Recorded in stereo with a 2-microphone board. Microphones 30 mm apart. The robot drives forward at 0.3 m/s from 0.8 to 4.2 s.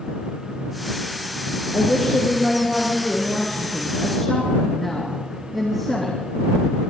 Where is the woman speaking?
5° left (ahead or behind), 3.5 m.